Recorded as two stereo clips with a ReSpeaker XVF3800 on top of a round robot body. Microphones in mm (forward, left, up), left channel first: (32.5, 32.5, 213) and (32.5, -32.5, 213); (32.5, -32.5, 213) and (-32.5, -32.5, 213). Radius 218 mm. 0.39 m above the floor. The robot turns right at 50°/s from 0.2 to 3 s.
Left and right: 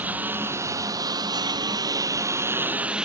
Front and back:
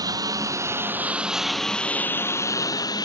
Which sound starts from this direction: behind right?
A lawn mower, at 0.0 s.